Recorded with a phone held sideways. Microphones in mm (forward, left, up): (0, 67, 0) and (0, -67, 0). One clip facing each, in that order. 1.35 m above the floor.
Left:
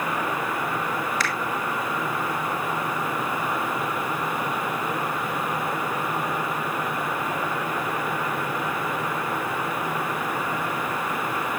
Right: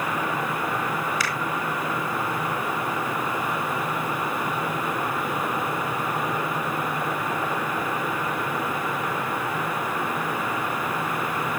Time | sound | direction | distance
1.2 | a finger snap | 15° right (ahead or behind) | 4 m